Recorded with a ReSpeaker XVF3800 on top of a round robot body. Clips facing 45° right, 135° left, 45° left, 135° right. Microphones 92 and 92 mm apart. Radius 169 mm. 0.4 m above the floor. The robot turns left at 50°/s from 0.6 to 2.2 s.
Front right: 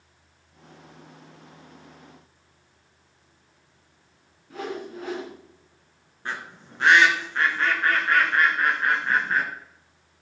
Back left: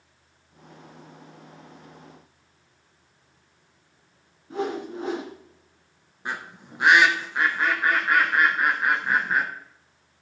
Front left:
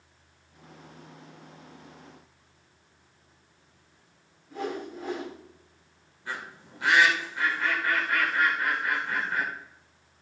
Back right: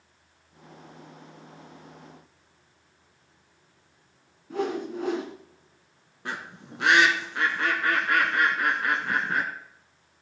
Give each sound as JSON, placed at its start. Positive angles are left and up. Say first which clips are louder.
{"t": 4.5, "sound": "a whoosh", "louder": "back left 4 dB, back right 5 dB", "azimuth_deg": -160, "distance_m": 1.9}
{"t": 6.2, "sound": "a bird", "louder": "back left 1 dB, back right 2 dB", "azimuth_deg": -145, "distance_m": 1.9}